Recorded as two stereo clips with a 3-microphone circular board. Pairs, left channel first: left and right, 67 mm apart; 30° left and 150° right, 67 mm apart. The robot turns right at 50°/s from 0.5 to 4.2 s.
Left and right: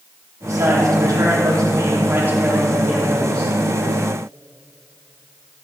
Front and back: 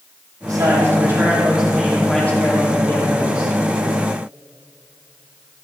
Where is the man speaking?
135° right, 3.5 m; by 3.5 s 15° left, 3.5 m.